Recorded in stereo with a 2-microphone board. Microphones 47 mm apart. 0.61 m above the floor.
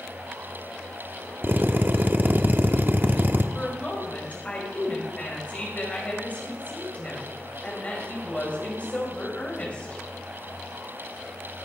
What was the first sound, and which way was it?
A drill, 45° right (ahead or behind).